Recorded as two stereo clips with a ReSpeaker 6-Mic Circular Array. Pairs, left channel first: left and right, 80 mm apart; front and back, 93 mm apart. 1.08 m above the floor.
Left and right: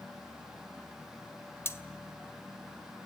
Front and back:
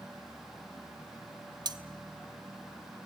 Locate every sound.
1.6 s cutlery clinking: 145° left, 0.9 m